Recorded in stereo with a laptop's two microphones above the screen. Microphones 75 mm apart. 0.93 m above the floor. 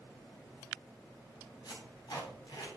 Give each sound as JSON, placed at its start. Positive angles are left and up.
{"t": 1.6, "sound": "tape being pulled", "side_deg": 70, "distance_m": 3.5}